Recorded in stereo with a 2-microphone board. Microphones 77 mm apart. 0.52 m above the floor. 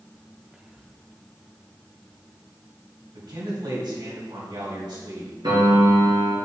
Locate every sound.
0.5 s whispering: 15° right (ahead or behind), 0.8 m
3.1 s a man speaking: 70° right (ahead or behind), 3.5 m
5.4 s a piano: 80° right, 3 m